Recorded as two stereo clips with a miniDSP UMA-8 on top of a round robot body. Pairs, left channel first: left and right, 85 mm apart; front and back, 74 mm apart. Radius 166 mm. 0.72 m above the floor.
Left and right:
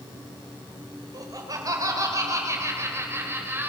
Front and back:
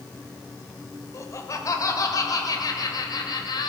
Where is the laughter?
50° right, 4 m; by 3.7 s 25° right, 4 m.